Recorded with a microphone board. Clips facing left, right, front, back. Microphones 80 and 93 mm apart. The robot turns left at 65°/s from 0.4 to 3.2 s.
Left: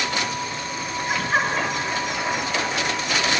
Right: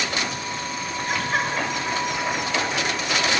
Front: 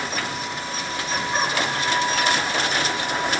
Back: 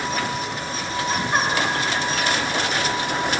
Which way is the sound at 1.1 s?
175° left.